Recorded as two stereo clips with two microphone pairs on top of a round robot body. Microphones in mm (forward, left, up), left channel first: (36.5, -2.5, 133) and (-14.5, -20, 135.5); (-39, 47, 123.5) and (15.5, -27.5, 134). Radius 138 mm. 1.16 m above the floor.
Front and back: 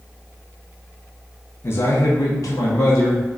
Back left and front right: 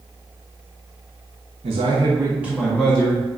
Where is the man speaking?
30° right, 0.6 m; by 3.3 s 50° left, 1.0 m.